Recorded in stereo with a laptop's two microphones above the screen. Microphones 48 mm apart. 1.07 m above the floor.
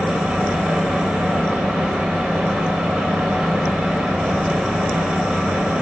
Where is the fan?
20° right (ahead or behind), 1.2 m.